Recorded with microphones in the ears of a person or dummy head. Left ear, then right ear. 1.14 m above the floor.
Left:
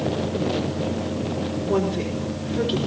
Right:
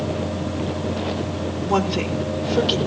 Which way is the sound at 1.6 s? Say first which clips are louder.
Right 3 dB; 70° right (ahead or behind).